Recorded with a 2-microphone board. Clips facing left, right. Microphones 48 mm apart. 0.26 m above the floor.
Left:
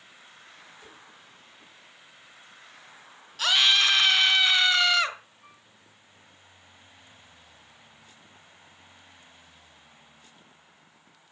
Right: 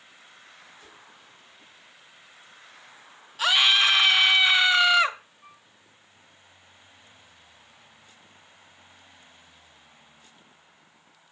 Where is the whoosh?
20° left (ahead or behind), 2 m.